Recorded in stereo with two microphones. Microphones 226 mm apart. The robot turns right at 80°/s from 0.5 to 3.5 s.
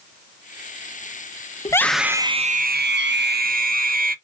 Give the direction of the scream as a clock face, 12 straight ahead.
7 o'clock.